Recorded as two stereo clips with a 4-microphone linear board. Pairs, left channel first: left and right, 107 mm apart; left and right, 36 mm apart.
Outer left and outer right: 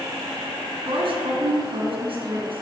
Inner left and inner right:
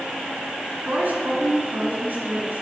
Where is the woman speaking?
55° right (ahead or behind), 3 m.